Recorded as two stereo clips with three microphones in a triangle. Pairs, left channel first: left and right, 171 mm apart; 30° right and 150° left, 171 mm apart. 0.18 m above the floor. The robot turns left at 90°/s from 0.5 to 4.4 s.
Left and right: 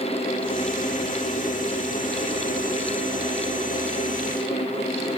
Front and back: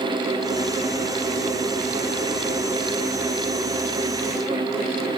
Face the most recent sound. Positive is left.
No sound to turn to.